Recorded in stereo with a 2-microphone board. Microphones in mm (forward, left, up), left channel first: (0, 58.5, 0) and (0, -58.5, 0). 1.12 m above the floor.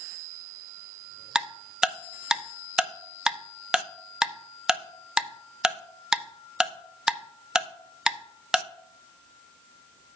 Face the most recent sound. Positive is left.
turn(degrees=-5)  # may be behind; listen again after turning